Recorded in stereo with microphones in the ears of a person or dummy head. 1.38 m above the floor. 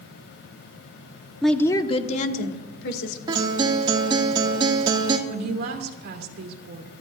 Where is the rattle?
No rattle in this recording.